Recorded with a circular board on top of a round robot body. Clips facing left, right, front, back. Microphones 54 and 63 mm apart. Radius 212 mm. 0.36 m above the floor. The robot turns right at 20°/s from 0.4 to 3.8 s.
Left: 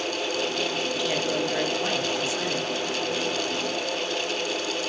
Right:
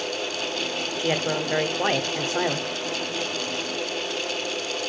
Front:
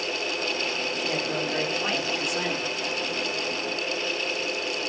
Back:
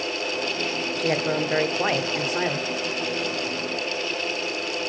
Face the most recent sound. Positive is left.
turn(degrees=-95)